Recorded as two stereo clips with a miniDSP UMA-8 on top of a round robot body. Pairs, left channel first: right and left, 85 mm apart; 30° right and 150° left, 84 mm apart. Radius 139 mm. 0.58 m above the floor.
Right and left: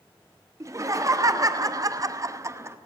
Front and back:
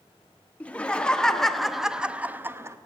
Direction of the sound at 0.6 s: 40° left.